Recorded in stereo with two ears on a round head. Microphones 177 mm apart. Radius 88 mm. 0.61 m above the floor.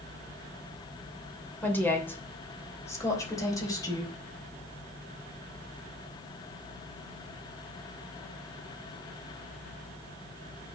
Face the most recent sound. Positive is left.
turn(degrees=20)  # may be behind; listen again after turning